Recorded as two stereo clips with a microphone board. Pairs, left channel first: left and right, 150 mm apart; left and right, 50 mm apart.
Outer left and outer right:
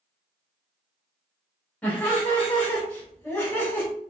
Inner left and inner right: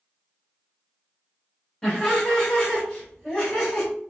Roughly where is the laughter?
Centre.